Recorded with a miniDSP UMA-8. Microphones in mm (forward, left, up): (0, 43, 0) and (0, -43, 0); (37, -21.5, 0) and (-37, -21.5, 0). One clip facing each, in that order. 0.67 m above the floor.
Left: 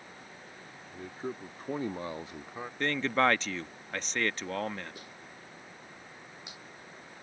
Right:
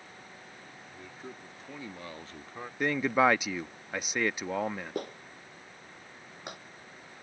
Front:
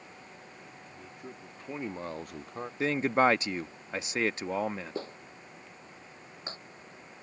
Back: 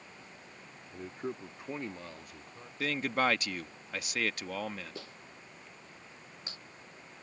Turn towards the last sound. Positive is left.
turn(degrees=-55)